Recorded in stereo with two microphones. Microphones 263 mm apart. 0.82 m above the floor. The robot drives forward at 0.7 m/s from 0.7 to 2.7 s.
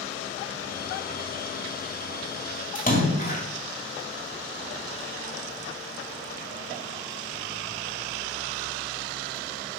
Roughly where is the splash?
Left.